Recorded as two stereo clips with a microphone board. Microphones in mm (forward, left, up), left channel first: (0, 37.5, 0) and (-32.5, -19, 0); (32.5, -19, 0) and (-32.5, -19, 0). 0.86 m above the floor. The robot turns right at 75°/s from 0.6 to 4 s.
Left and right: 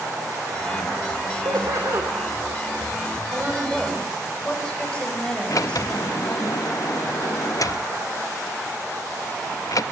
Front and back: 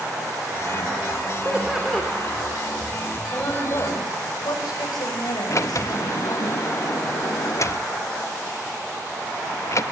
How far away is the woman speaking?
About 5.5 m.